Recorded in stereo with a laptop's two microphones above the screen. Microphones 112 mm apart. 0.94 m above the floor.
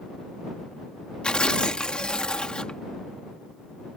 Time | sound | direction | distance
1.2 | tearing paper | 10° left (ahead or behind) | ?